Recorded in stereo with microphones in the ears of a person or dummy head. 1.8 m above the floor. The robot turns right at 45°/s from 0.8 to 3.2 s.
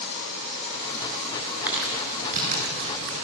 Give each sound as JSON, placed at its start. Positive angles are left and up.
{"t": 1.7, "sound": "crumpling", "side_deg": -15, "distance_m": 6.5}